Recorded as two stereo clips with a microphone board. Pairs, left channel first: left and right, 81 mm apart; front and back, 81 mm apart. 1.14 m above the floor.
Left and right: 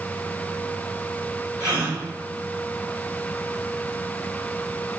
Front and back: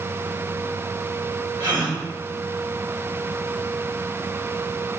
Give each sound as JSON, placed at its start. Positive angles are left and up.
{"t": 1.6, "sound": "a gasp", "azimuth_deg": -165, "distance_m": 3.0}